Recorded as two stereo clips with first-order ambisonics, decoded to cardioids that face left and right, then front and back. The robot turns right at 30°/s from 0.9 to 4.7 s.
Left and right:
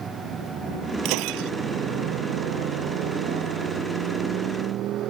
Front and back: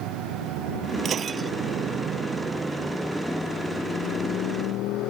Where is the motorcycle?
155° right; by 5.1 s 40° right.